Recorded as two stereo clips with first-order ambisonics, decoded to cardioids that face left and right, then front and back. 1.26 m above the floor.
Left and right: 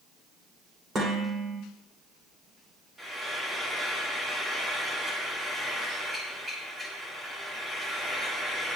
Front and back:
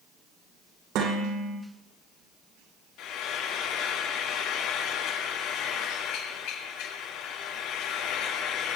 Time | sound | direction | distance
0.9 | dishes clattering | 155° right | 3.5 m
3.0 | frying | 10° right | 1.8 m